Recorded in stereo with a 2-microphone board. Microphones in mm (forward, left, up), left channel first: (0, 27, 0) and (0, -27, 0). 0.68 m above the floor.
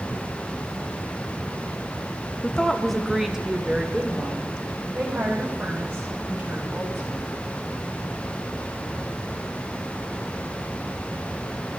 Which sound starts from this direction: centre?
A woman speaking, at 2.4 s.